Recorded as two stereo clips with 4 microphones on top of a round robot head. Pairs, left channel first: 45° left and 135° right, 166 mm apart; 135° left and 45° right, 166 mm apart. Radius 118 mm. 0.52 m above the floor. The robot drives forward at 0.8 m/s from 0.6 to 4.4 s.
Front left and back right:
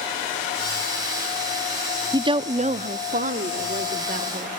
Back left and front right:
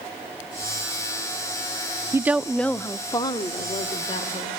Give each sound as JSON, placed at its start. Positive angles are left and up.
{"t": 2.1, "sound": "a woman speaking", "azimuth_deg": -95, "distance_m": 0.7}